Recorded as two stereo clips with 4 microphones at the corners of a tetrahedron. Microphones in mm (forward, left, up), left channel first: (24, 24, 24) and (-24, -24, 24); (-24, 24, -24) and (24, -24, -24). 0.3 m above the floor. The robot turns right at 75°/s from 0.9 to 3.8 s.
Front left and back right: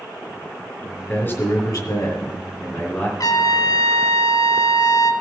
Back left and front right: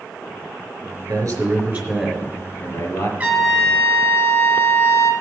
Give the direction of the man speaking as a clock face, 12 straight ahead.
1 o'clock.